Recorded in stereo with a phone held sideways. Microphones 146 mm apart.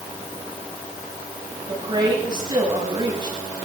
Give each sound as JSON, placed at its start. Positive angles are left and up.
{"t": 1.7, "sound": "a woman speaking", "side_deg": -35, "distance_m": 6.5}